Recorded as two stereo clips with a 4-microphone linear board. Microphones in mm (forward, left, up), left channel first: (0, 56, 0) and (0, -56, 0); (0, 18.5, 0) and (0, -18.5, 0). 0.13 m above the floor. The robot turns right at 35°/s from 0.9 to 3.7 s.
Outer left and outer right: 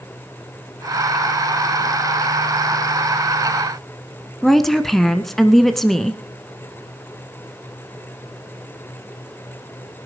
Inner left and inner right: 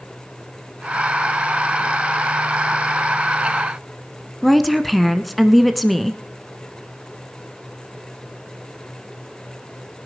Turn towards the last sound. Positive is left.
turn(degrees=0)  # may be behind; listen again after turning